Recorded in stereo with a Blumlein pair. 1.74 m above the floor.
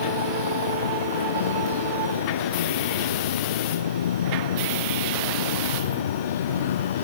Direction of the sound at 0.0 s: 65° left.